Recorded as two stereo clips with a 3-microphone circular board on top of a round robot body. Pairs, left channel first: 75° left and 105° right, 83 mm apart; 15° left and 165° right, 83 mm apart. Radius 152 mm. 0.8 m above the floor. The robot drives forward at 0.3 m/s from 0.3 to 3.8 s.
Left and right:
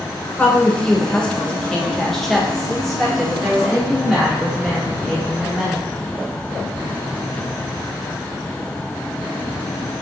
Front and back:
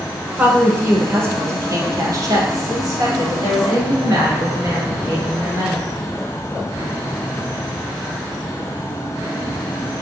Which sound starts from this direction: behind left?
A woman speaking, at 0.4 s.